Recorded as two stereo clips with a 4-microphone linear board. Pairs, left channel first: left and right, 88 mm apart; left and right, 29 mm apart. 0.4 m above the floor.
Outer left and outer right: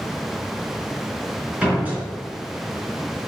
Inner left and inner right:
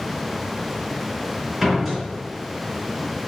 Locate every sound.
1.6 s a door slam: 15° right (ahead or behind), 4 m